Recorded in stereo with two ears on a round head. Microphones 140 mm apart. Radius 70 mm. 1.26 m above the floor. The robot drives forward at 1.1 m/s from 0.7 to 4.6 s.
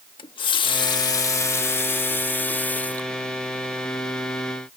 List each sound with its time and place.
0.2 s a running tap: 35° left (ahead or behind); by 4.0 s 10° left (ahead or behind)